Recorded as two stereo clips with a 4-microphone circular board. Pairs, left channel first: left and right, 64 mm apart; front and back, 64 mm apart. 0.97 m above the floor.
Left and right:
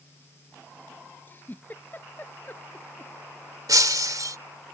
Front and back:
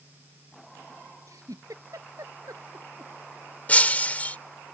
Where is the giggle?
150° left.